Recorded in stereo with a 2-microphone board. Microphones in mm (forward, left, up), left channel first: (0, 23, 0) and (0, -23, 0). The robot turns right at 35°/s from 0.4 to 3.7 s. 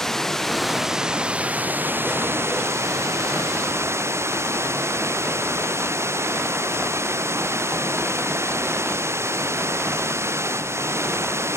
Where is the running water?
170° left; by 11.6 s 70° right.